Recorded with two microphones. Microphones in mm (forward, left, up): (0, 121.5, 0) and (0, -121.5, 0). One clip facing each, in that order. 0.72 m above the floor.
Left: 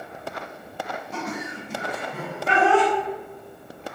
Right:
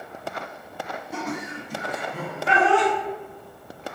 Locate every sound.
1.1 s laughter: 10° right (ahead or behind), 0.7 m; by 2.9 s 60° left (ahead or behind), 1.2 m